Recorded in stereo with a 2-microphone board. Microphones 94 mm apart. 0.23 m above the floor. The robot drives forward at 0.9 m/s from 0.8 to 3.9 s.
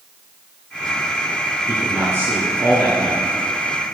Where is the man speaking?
35° right (ahead or behind), 2.5 m; by 3.9 s 20° right (ahead or behind), 4 m.